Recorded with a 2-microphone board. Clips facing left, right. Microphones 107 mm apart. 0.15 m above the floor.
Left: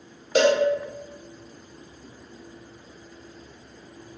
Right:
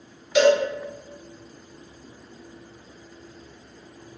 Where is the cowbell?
45° left (ahead or behind), 0.5 m.